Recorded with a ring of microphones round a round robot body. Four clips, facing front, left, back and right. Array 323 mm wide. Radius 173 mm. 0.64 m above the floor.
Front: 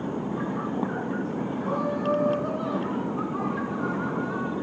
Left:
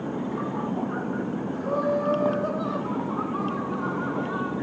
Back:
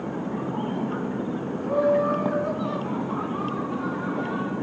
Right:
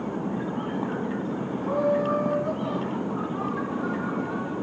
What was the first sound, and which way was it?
Laughter, 80° left.